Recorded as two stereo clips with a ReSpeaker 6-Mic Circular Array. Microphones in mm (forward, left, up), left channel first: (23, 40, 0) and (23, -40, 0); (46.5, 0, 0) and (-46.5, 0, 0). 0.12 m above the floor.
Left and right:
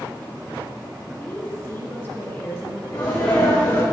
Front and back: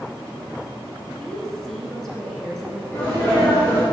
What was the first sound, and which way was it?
A woman speaking, 80° left.